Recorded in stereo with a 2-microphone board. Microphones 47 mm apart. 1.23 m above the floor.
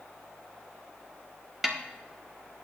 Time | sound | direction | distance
1.6 | a snare drum | 5° right (ahead or behind) | 1.2 m